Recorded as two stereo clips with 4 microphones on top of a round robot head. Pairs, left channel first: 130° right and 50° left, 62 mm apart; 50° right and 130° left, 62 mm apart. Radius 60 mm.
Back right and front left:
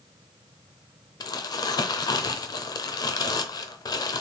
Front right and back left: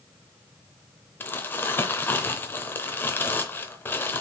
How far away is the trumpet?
I don't hear a trumpet.